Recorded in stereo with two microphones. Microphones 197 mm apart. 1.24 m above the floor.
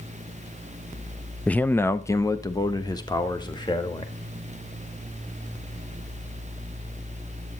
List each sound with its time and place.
1.5 s a man speaking: 5° left (ahead or behind), 0.6 m; by 4.1 s 25° left (ahead or behind), 2 m